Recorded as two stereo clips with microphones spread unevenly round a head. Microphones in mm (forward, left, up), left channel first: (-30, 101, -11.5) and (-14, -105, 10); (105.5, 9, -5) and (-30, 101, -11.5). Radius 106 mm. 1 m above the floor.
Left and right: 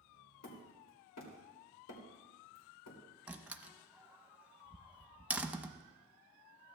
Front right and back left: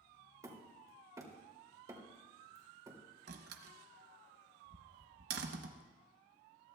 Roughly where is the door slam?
Behind.